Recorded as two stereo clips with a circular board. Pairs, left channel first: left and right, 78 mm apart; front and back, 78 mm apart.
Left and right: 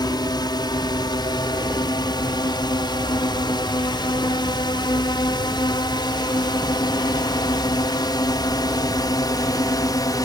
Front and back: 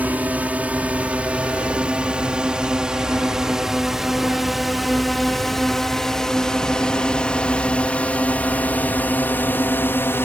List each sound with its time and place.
0.0 s a drone: 110° left; by 10.2 s 60° left